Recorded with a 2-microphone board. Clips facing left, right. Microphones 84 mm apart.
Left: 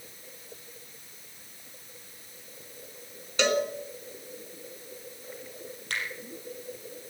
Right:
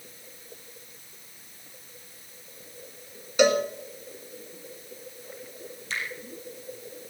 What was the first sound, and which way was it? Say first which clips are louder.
A cowbell: right 5 dB; 10° right (ahead or behind).